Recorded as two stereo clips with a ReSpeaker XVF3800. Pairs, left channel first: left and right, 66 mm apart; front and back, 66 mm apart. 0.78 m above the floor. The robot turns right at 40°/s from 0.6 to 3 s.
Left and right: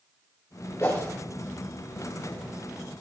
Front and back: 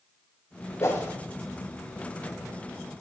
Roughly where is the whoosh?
Ahead left.